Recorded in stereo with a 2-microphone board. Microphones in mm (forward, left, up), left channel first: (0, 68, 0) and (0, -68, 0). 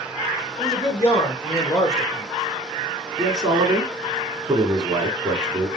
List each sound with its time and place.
0.6 s a man speaking: 30° left (ahead or behind), 4 m
3.2 s a man speaking: 30° right (ahead or behind), 3 m